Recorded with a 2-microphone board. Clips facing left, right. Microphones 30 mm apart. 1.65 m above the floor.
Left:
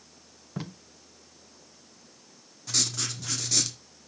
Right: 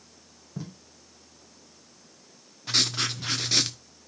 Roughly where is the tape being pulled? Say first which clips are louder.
Left 2 dB; left.